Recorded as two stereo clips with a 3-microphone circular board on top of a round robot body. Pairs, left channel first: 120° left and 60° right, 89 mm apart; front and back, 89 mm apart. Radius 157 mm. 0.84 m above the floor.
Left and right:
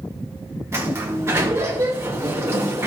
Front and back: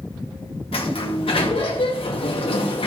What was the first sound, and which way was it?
A sliding door, straight ahead.